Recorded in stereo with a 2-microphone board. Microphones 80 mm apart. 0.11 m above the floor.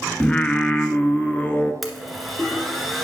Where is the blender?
Centre (ahead or behind), 1.6 m.